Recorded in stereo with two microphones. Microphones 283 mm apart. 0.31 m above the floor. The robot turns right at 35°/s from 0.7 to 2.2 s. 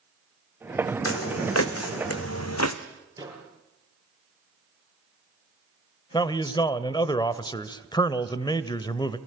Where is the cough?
I don't hear a cough.